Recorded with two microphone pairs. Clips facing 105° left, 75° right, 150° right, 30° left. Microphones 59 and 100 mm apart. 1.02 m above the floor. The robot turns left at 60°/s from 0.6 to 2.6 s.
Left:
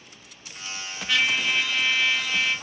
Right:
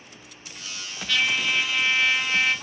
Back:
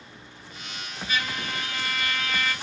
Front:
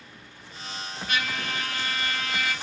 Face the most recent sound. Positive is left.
turn(degrees=-55)